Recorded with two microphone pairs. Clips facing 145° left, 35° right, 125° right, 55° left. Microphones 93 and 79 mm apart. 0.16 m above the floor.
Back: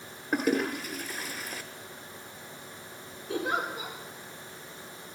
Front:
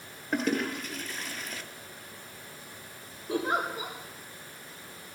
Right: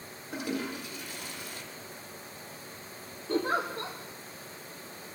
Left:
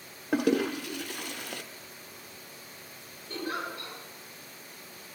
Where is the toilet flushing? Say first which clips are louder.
Back 2 dB, left 8 dB; 65° left, 1.2 m.